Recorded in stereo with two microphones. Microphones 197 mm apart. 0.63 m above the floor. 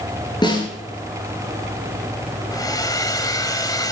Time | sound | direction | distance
0.4 | a snare drum | 20° left (ahead or behind) | 6.5 m
2.5 | a hair dryer | 20° left (ahead or behind) | 1.5 m